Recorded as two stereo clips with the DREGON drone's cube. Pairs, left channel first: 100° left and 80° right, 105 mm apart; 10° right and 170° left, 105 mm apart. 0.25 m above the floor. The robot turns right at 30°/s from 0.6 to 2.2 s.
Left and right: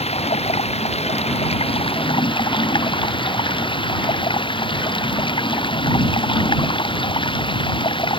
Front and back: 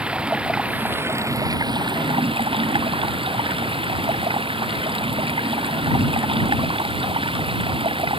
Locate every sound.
0.0 s running water: 90° left; by 8.2 s 135° left